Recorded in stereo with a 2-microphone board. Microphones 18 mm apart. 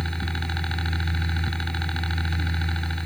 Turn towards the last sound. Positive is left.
turn(degrees=25)  # may be behind; listen again after turning